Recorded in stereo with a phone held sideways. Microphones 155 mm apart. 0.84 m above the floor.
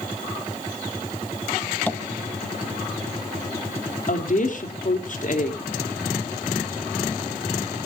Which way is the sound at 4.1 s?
55° left (ahead or behind).